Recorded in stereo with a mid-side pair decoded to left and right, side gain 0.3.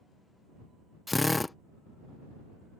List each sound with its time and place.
1.1 s a drill: 25° left